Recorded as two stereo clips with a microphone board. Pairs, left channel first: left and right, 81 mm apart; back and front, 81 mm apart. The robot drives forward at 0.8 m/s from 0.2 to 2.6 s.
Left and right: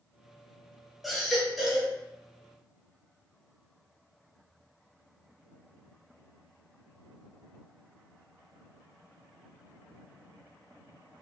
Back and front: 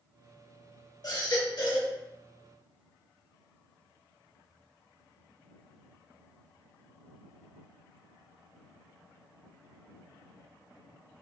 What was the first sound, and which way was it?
A baby crying, straight behind.